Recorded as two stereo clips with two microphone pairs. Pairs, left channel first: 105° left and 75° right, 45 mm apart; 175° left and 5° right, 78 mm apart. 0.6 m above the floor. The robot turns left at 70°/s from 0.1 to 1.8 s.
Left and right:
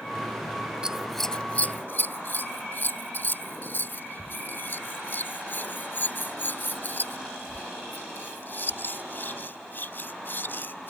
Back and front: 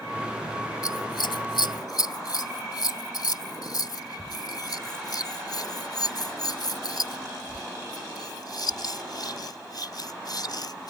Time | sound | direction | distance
0.8 | scissors | 145° right | ?